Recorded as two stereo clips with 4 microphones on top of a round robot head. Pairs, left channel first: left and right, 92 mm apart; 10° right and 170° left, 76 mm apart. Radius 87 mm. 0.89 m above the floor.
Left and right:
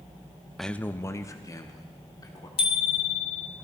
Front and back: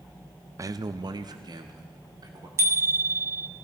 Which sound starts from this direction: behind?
A man speaking, at 0.6 s.